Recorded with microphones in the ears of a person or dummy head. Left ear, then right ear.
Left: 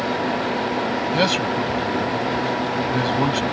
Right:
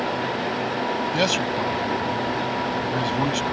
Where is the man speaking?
15° right (ahead or behind).